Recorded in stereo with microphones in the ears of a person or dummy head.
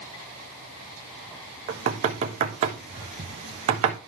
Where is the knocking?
40° right (ahead or behind), 1.2 m.